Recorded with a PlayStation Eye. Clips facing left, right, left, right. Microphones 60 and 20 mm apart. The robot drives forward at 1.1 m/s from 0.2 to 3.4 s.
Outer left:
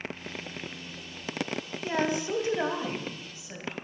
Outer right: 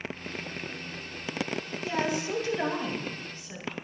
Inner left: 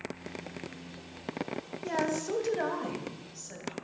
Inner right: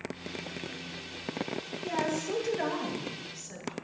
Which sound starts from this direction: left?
A woman speaking, at 1.8 s.